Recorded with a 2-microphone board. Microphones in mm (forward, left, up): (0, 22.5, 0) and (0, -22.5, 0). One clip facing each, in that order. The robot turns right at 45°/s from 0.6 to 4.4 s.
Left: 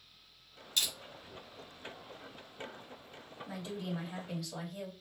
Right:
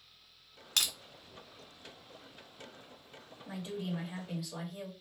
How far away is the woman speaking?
About 1.4 m.